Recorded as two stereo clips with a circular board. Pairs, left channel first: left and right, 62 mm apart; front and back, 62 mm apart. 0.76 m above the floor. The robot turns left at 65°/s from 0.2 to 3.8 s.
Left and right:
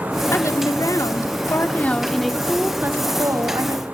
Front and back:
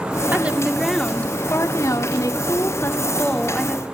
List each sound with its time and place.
0.3 s a woman speaking: 125° left, 2.5 m; by 3.8 s 100° right, 2.5 m